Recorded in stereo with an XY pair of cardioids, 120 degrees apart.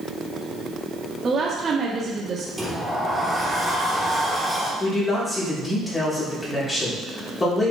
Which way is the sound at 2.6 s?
5° right.